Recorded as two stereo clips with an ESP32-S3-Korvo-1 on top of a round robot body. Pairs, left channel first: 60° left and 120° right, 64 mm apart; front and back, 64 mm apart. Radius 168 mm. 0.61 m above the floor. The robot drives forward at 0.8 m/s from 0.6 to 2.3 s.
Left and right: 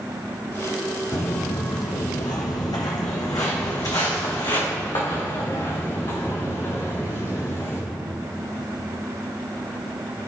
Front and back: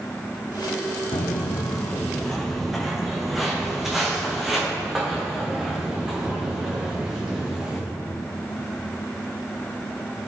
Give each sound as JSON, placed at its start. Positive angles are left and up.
{"t": 1.1, "sound": "footsteps", "azimuth_deg": 10, "distance_m": 1.4}